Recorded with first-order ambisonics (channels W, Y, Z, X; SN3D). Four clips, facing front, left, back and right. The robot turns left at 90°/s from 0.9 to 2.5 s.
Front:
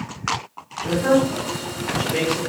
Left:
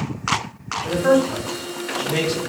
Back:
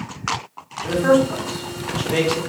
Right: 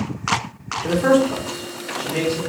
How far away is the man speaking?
About 1.8 m.